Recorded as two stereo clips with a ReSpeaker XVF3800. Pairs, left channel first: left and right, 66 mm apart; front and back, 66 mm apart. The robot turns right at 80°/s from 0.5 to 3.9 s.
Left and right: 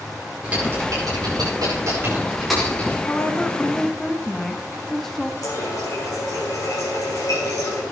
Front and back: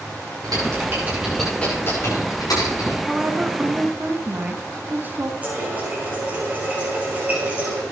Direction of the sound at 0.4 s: 160° right.